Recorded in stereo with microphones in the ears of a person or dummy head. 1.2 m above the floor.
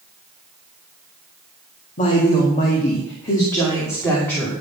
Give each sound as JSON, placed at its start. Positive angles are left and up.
{"t": 2.0, "sound": "a woman speaking", "side_deg": 40, "distance_m": 2.0}